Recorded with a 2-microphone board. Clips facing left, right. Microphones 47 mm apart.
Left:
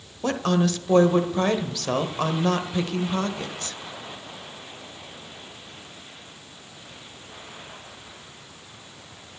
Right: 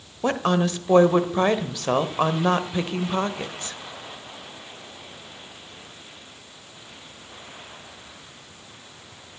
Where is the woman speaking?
20° right (ahead or behind), 1.0 m.